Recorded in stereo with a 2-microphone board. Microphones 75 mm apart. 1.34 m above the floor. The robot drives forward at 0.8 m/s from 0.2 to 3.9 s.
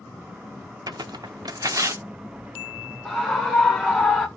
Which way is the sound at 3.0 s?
Centre (ahead or behind).